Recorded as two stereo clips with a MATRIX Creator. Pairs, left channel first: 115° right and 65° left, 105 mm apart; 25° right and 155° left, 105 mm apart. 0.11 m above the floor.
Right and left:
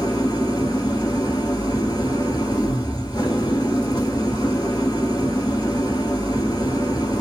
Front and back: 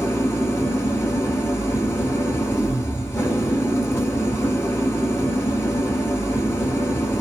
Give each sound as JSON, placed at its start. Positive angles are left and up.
{"t": 0.0, "sound": "an engine running", "azimuth_deg": -85, "distance_m": 1.0}